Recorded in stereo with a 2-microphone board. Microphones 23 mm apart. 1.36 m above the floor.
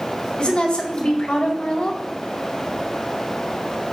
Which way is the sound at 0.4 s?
45° left (ahead or behind).